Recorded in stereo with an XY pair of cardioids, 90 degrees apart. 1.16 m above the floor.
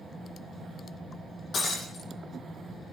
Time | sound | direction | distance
1.5 | breaking glass | 60° left | 9.5 m